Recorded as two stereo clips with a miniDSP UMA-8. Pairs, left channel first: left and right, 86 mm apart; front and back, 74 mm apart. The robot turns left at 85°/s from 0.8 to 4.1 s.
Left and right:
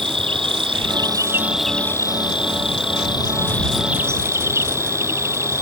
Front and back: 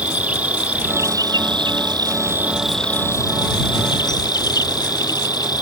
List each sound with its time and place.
0.0 s an insect: 110° right; by 5.6 s 30° right